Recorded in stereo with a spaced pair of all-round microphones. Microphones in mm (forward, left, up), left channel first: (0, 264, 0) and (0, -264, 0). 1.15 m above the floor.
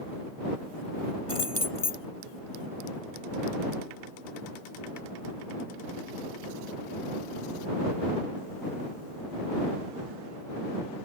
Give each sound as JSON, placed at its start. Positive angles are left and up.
{"t": 1.3, "sound": "keys jangling", "side_deg": 85}